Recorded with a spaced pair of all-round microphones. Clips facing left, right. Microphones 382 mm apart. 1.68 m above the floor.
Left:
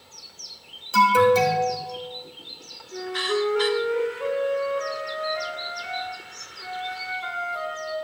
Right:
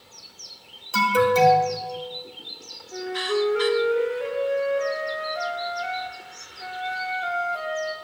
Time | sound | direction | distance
0.9 | an alarm | centre (ahead or behind) | 2 m
2.9 | a flute | 5° left (ahead or behind) | 2.5 m